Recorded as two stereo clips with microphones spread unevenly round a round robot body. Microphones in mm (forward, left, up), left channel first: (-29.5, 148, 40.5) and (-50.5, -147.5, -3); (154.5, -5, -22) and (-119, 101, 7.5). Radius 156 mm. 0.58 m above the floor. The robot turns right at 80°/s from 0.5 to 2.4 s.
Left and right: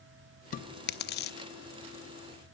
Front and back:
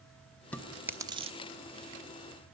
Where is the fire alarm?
No fire alarm in this recording.